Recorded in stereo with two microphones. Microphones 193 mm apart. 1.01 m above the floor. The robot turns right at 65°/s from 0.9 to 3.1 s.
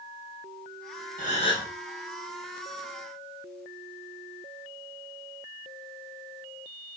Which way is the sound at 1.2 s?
135° left.